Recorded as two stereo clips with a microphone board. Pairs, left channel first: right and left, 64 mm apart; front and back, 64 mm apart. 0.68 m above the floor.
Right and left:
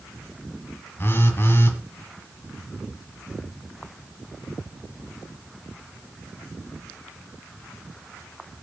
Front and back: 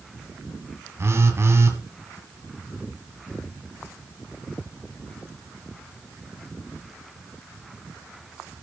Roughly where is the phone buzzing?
Behind right.